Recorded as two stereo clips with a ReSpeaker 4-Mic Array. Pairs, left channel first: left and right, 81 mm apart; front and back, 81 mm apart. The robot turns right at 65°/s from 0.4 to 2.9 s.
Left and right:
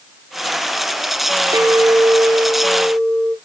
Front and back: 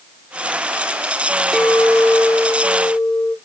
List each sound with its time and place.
1.5 s a clink: 90° right, 1.1 m; by 3.4 s straight ahead, 1.1 m